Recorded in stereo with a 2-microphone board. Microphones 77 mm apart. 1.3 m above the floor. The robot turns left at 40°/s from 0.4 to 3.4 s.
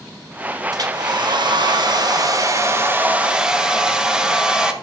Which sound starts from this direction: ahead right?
A hair dryer, at 0.7 s.